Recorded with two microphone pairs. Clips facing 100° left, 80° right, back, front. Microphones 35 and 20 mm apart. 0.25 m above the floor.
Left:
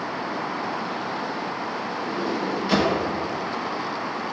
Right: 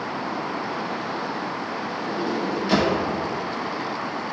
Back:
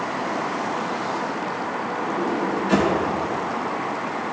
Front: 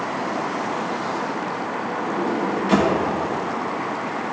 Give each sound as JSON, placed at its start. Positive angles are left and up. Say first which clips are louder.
{"t": 2.0, "sound": "a sliding door", "louder": "right 1 dB, front 1 dB", "azimuth_deg": 15, "distance_m": 1.3}